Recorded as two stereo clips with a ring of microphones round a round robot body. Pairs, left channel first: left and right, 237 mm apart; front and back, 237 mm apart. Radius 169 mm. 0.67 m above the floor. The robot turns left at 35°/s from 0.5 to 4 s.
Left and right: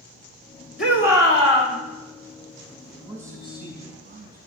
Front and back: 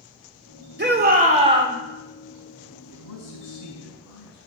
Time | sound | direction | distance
0.8 | a shout | 140° left | 2.5 m
2.9 | a man speaking | straight ahead | 4.5 m